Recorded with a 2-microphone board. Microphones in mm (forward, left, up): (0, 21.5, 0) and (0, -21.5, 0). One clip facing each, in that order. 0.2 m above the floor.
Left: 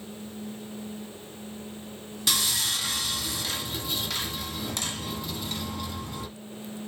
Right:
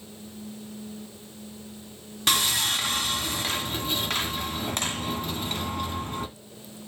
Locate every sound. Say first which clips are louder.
2.3 s sawing: right 4 dB; 45° right (ahead or behind), 1.8 m